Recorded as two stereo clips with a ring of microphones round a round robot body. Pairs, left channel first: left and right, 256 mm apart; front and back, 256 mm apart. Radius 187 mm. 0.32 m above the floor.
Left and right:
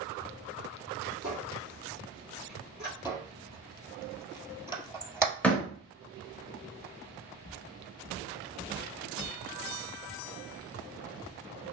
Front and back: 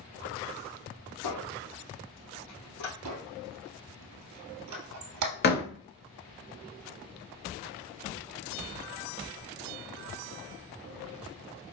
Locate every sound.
1.2 s a squeak: 10° right, 3 m
3.0 s a squeak: 170° right, 1.6 m
5.4 s a door slam: 10° left, 1.0 m